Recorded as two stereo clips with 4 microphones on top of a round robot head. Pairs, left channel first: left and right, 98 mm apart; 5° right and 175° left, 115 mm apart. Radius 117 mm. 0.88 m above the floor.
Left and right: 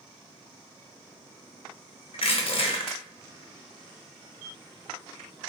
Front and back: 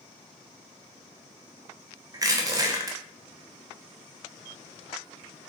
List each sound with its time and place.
2.1 s crushing: 115° left, 0.9 m